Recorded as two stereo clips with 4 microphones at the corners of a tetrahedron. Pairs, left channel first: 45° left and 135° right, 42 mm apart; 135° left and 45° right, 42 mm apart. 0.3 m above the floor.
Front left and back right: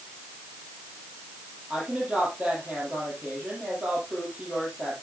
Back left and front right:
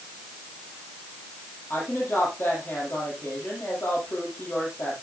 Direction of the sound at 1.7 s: 160° left.